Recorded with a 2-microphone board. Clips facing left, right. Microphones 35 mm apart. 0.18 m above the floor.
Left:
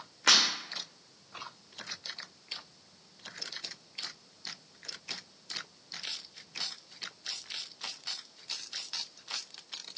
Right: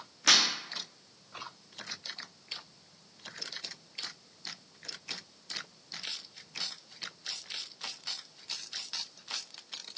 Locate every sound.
0.3 s breaking glass: 45° left (ahead or behind), 2.5 m